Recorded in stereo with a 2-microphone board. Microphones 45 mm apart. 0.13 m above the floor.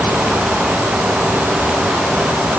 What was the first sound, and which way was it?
Only background noise.